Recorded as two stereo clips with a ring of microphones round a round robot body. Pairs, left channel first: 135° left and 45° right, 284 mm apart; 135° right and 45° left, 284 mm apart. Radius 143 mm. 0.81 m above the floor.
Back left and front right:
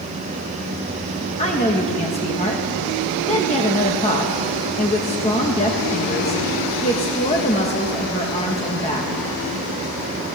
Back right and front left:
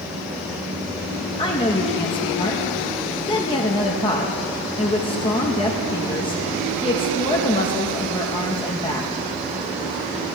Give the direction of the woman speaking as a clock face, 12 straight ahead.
6 o'clock.